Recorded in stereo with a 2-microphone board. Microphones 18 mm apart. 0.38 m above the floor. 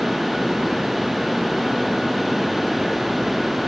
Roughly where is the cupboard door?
I don't hear a cupboard door.